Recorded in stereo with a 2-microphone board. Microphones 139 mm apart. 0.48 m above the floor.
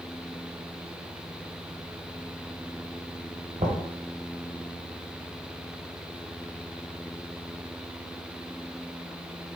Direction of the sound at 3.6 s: 65° right (ahead or behind).